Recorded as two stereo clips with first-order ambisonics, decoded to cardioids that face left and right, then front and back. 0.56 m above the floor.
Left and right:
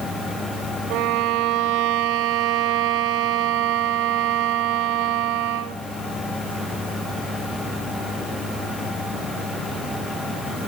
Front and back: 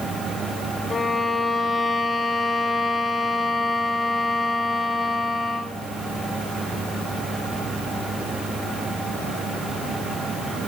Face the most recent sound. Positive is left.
turn(degrees=-80)